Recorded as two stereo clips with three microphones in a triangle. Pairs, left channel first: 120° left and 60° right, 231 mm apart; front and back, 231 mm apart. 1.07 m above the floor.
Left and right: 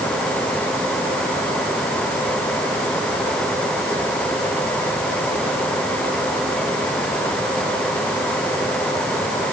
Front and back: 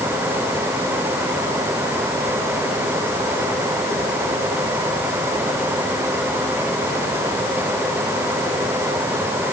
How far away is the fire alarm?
No fire alarm in this recording.